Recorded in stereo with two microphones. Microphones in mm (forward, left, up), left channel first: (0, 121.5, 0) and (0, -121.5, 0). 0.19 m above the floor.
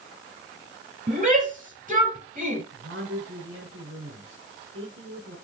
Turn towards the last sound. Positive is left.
turn(degrees=-55)  # may be behind; listen again after turning